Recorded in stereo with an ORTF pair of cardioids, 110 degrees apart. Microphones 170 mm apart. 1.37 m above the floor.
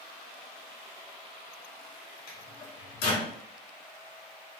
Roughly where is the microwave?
Ahead left.